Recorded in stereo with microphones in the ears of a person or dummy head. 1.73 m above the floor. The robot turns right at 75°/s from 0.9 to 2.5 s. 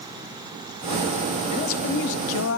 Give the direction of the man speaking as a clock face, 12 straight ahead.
11 o'clock.